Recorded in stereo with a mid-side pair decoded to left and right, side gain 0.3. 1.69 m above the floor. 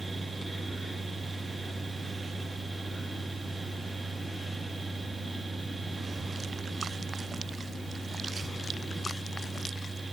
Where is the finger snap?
No finger snap in this recording.